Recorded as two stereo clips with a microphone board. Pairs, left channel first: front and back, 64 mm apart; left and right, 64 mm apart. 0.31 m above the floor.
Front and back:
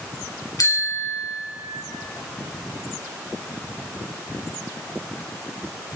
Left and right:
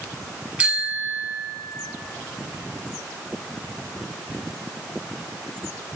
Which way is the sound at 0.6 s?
25° right.